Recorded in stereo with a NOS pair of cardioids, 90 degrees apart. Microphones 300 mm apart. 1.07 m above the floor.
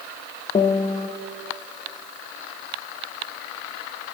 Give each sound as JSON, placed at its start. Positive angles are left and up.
{"t": 0.6, "sound": "a piano", "azimuth_deg": 20, "distance_m": 0.7}